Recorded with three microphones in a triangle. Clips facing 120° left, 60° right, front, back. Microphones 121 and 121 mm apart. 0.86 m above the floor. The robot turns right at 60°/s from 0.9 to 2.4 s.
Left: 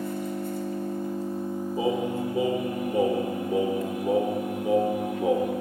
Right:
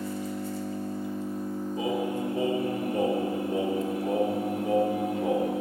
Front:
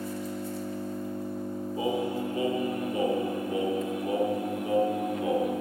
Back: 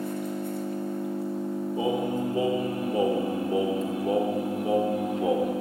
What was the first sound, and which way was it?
An engine running, 150° left.